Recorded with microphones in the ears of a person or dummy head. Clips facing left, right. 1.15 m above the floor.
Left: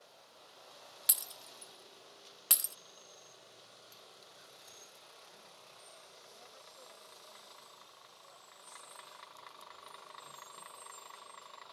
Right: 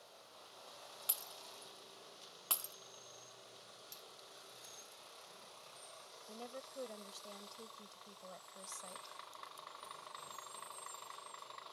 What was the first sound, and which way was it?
Breaking glass, 25° left (ahead or behind).